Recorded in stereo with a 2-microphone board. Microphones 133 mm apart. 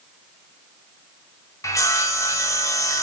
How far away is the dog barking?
No dog barking in this recording.